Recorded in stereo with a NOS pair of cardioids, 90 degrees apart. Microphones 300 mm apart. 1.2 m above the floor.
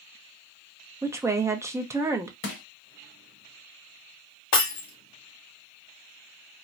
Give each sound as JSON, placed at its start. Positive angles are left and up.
{"t": 1.0, "sound": "a woman speaking", "azimuth_deg": -10, "distance_m": 0.6}
{"t": 2.4, "sound": "crushing", "azimuth_deg": 40, "distance_m": 1.1}
{"t": 4.5, "sound": "breaking glass", "azimuth_deg": 60, "distance_m": 1.4}